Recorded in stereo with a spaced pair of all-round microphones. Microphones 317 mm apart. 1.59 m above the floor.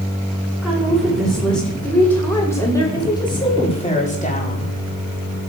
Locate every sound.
0.6 s a woman speaking: centre (ahead or behind), 6 m; by 4.7 s 30° left (ahead or behind), 3.5 m